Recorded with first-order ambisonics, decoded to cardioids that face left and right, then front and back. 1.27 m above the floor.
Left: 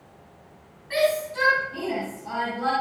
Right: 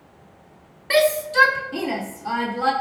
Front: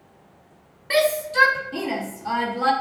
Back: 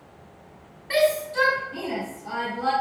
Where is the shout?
75° right, 2.5 m; by 2.7 s 40° right, 2.5 m.